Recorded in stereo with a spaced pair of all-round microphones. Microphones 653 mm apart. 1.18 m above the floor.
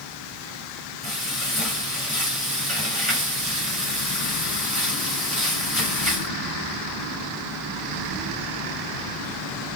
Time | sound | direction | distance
1.0 | frying | 20° left (ahead or behind) | 3.5 m